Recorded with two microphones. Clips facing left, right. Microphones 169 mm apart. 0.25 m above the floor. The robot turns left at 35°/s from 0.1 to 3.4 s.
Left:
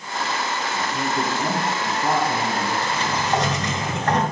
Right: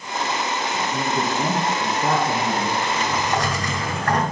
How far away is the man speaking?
About 3 m.